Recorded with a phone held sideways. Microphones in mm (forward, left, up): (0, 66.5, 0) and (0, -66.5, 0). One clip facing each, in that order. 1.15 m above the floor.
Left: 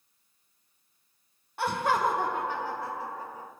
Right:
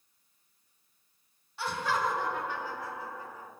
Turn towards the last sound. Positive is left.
turn(degrees=35)  # may be behind; listen again after turning